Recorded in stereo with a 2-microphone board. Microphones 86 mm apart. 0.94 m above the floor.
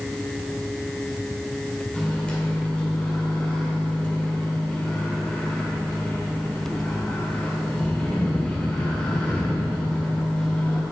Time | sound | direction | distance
1.9 | a microwave | 10° left (ahead or behind) | 2.5 m